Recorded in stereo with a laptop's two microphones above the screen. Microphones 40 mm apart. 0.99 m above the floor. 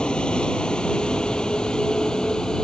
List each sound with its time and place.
0.0 s a vehicle: 25° left (ahead or behind); by 2.6 s 20° left (ahead or behind)